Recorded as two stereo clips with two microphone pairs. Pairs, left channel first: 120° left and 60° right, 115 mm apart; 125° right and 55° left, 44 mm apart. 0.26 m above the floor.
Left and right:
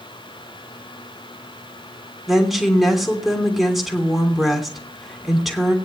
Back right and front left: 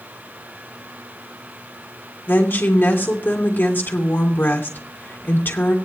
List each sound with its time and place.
2.3 s a woman speaking: 150° right, 3 m